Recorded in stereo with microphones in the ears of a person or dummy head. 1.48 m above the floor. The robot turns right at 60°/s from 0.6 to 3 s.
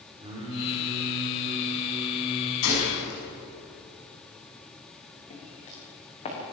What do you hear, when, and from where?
0.2 s singing: 150° right, 4 m; by 2.5 s 30° right, 4 m
2.6 s a gunshot: 80° left, 6.5 m; by 3.2 s 60° left (ahead or behind), 6.5 m
5.3 s footsteps: 40° left (ahead or behind), 8 m; by 6.4 s 35° left (ahead or behind), 8.5 m